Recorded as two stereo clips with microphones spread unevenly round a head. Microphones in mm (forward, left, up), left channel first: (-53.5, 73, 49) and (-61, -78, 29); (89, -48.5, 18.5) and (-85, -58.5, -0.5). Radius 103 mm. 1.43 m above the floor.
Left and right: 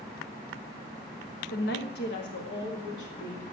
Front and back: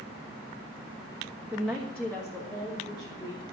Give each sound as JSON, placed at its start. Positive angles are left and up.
{"t": 1.5, "sound": "a woman speaking", "azimuth_deg": 100, "distance_m": 1.2}